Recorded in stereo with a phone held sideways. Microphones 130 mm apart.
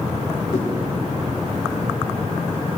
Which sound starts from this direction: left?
A whoosh, at 0.5 s.